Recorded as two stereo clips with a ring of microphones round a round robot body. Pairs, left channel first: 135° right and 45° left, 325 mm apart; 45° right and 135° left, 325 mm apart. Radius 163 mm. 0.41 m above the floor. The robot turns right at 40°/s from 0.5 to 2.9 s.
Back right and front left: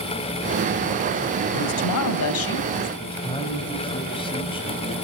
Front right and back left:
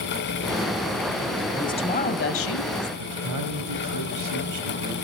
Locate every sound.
1.5 s a woman speaking: 125° right, 2 m; by 2.9 s 70° right, 2 m
3.0 s a man speaking: 155° left, 3 m